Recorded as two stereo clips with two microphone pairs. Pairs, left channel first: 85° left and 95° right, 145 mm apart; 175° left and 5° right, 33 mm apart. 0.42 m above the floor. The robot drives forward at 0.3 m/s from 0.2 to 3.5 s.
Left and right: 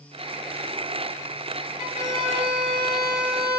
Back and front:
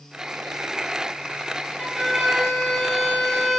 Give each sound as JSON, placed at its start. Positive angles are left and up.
{"t": 1.8, "sound": "a violin", "azimuth_deg": 85, "distance_m": 1.6}